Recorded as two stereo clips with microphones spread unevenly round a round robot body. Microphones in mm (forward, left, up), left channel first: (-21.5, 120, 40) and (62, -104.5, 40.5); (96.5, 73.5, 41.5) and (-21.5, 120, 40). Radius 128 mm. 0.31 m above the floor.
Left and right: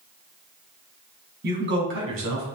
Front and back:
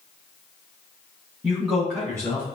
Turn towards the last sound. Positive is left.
turn(degrees=-95)